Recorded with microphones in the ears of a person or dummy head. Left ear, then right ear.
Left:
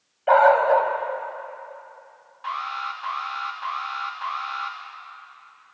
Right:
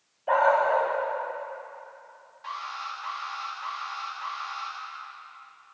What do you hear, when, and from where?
0.3 s a dog barking: 75° left (ahead or behind), 3 m
2.4 s an alarm: 35° left (ahead or behind), 3 m